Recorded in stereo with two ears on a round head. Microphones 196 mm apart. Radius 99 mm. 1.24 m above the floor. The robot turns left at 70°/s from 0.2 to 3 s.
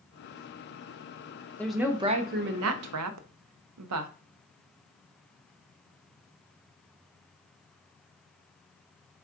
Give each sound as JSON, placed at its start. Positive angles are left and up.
{"t": 1.6, "sound": "a woman speaking", "azimuth_deg": 10, "distance_m": 0.5}